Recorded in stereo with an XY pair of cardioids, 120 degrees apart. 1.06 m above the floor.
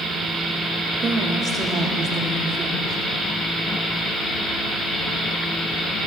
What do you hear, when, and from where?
1.0 s a woman speaking: 40° right, 1.8 m; by 3.0 s 50° right, 3 m